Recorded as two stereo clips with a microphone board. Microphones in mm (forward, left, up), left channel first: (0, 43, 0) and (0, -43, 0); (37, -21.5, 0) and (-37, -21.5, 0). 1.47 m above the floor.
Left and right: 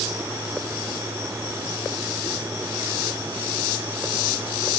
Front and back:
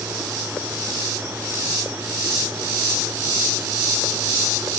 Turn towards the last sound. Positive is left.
No sound to turn to.